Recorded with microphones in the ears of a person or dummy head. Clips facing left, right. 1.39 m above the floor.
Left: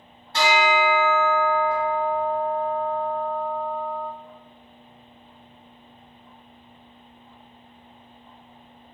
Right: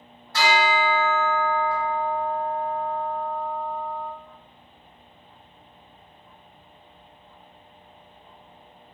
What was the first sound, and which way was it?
A bell, 25° left (ahead or behind).